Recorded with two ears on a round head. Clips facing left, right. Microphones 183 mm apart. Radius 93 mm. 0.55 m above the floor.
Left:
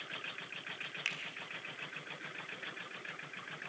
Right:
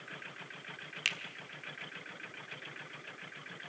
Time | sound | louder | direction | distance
1.1 | a finger snap | right 5 dB | 45° right (ahead or behind) | 1.3 m